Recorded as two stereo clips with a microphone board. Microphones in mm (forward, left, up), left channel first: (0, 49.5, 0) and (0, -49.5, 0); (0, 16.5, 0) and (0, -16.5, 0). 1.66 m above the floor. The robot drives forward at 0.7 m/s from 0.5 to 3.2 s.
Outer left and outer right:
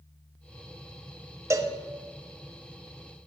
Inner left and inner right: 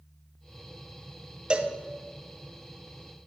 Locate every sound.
1.5 s a cowbell: 30° right (ahead or behind), 0.7 m; by 1.8 s 25° right (ahead or behind), 0.8 m